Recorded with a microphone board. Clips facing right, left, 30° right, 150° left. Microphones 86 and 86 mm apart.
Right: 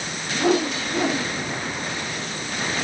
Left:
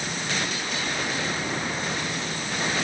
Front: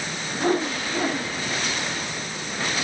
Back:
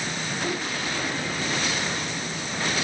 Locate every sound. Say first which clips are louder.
0.3 s a whoosh: right 9 dB, front 9 dB; 80° right